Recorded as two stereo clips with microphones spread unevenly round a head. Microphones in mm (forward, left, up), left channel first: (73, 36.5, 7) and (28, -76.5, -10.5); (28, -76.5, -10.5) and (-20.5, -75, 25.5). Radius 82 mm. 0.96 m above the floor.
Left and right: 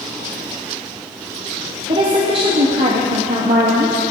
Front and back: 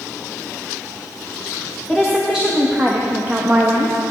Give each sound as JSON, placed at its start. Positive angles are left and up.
{"t": 1.9, "sound": "a woman speaking", "azimuth_deg": -75, "distance_m": 1.8}